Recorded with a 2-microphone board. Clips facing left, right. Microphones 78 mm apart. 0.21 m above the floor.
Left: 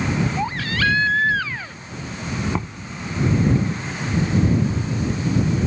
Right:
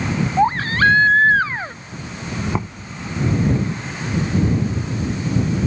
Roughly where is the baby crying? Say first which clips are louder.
Right 7 dB; right.